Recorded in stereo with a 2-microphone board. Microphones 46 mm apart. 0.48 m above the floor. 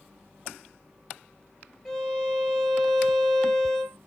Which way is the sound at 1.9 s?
Centre (ahead or behind).